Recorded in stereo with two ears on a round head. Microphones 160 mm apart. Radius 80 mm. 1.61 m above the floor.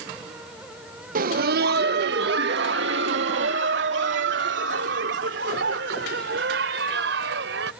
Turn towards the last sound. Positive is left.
turn(degrees=-75)  # may be behind; listen again after turning